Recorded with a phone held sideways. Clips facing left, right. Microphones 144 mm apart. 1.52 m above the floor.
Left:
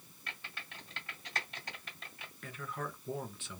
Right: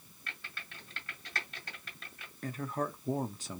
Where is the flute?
I don't hear a flute.